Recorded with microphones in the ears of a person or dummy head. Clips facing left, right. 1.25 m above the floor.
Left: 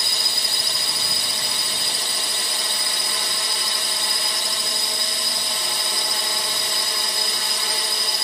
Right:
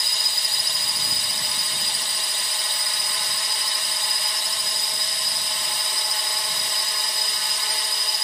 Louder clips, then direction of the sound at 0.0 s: Left 5 dB; 60° left (ahead or behind).